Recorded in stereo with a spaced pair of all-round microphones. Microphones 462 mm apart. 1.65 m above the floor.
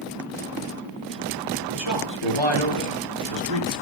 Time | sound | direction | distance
1.7 | a man speaking | 70° left (ahead or behind) | 5 m